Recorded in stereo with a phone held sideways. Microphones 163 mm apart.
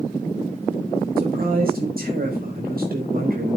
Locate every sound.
1.2 s a man speaking: 65° right (ahead or behind), 4 m